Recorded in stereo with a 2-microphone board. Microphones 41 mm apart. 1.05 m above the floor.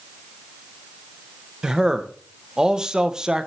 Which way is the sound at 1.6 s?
15° right (ahead or behind).